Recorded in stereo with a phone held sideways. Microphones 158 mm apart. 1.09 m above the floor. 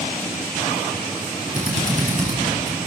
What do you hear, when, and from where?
1.6 s a drill: 50° right (ahead or behind), 8.5 m